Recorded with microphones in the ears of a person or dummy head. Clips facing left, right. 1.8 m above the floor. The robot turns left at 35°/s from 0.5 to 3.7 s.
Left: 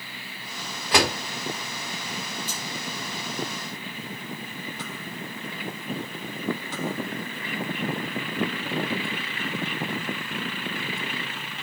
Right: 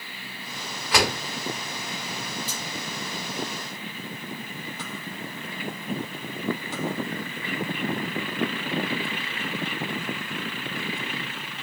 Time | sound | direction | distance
0.9 | a door slam | 25° left (ahead or behind) | 2.5 m
2.5 | cutlery clinking | 10° right (ahead or behind) | 1.7 m